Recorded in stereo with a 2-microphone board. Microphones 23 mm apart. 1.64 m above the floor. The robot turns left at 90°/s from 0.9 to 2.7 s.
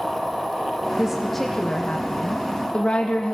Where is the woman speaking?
155° right, 1.8 m; by 3.4 s 55° left, 1.8 m.